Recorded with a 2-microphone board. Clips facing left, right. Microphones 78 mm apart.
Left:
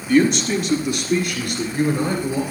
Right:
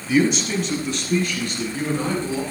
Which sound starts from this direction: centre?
A man speaking, at 0.1 s.